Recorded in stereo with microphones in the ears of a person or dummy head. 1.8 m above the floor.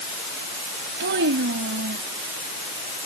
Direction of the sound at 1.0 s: 65° right (ahead or behind).